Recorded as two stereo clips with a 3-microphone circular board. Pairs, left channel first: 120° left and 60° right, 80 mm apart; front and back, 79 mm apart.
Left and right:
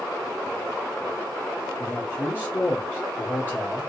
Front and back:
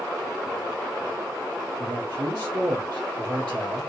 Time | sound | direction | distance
1.8 | a man speaking | 175° right | 2.0 m